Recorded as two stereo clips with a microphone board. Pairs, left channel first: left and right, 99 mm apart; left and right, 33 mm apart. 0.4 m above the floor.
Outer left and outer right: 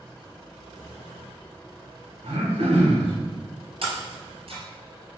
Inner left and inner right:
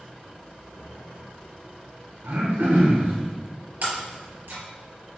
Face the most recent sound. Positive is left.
turn(degrees=-65)  # may be behind; listen again after turning